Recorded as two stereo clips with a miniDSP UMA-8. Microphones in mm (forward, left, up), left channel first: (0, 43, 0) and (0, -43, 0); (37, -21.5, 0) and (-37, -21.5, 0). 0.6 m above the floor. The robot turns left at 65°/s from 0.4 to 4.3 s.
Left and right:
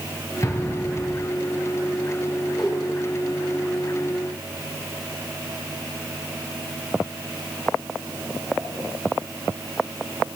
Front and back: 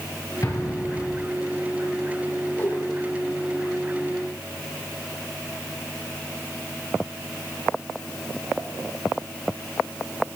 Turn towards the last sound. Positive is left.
turn(degrees=-45)